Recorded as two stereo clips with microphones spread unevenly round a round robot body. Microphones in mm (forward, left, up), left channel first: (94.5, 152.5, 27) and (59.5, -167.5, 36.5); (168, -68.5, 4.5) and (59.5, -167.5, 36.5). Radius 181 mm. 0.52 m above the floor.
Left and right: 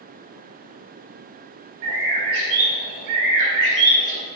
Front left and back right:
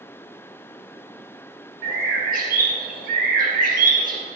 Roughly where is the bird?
Behind right.